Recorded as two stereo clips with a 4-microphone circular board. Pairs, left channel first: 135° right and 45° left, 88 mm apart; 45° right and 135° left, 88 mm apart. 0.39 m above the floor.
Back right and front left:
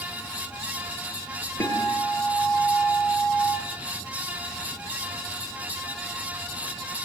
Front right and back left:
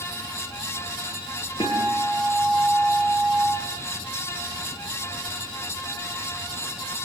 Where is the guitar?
75° right, 8.5 m.